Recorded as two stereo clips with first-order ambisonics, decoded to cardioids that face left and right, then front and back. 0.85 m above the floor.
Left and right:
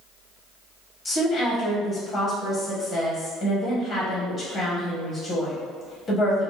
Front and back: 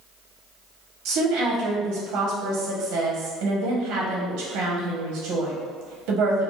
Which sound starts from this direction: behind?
A woman speaking, at 1.1 s.